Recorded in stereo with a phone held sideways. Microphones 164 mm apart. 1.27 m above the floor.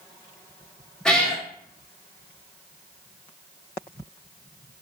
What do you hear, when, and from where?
1.1 s a cat meowing: 5° left (ahead or behind), 0.8 m